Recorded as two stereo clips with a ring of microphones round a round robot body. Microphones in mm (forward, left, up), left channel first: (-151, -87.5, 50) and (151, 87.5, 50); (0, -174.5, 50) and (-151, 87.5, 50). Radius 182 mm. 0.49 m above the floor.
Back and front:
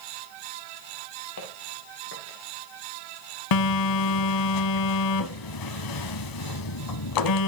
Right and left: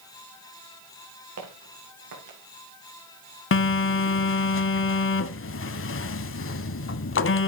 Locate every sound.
1.4 s footsteps: 160° left, 4.5 m; by 2.4 s 150° left, 5.5 m
3.5 s a phone buzzing: 115° right, 1.1 m